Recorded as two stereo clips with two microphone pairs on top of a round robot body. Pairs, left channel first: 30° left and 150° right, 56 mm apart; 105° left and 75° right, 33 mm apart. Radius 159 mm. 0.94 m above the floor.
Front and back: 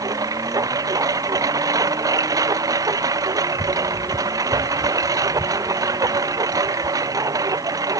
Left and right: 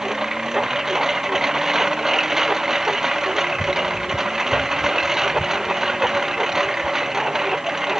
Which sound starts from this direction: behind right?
A lawn mower, at 0.0 s.